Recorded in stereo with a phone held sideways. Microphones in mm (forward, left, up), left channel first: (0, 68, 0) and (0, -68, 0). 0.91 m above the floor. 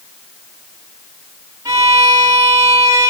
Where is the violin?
25° right (ahead or behind), 5 m.